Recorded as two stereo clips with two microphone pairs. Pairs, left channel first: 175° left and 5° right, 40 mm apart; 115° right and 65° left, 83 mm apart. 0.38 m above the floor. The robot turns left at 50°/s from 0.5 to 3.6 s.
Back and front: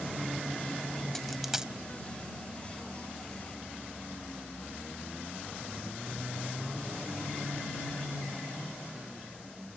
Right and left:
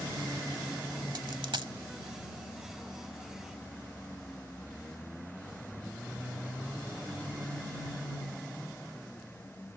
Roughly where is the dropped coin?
Left.